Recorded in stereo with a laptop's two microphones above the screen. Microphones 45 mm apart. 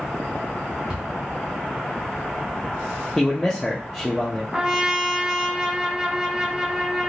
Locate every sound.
0.9 s a cupboard door: 20° right (ahead or behind), 1.1 m
3.2 s a man speaking: centre (ahead or behind), 0.7 m
4.5 s a trumpet: 15° right (ahead or behind), 0.7 m